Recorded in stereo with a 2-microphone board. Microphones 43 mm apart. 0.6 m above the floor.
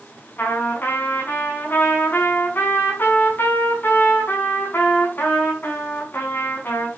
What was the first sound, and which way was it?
A trumpet, 55° left (ahead or behind).